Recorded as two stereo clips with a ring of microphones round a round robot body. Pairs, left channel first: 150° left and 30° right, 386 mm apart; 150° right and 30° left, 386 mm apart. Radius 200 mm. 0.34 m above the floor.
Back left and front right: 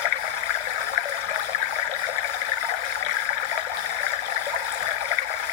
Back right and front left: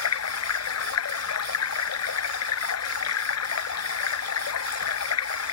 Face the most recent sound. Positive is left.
turn(degrees=155)